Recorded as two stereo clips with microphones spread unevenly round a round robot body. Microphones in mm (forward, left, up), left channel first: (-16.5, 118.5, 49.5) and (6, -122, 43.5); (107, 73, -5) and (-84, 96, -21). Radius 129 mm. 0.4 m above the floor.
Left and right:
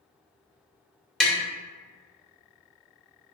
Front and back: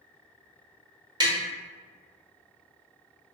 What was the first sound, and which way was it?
Tapping, 175° right.